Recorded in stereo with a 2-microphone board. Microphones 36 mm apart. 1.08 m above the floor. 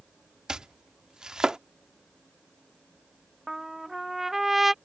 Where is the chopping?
20° right (ahead or behind).